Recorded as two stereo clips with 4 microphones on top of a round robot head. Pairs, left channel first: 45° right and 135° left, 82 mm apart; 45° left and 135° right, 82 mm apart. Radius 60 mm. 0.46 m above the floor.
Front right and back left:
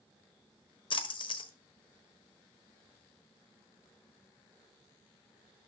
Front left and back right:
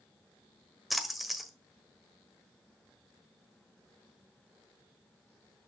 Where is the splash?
45° right, 1.4 m.